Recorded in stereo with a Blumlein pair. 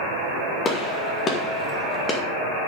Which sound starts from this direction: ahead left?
A gunshot, at 0.7 s.